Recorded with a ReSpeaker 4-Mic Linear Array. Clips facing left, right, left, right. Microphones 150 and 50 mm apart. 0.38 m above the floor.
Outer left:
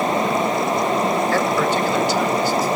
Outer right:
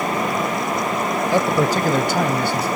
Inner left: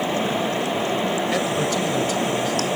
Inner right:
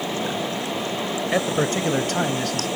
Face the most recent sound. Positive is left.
turn(degrees=-65)  # may be behind; listen again after turning